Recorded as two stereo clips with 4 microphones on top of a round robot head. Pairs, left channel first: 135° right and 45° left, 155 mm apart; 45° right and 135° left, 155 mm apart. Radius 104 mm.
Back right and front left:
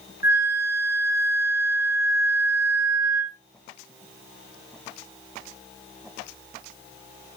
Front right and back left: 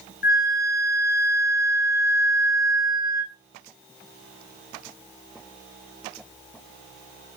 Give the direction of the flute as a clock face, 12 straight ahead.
1 o'clock.